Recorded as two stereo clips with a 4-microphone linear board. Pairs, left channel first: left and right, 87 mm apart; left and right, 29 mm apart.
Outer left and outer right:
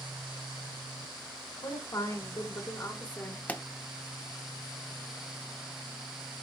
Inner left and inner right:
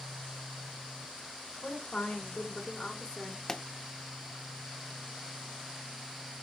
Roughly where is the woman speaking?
Left.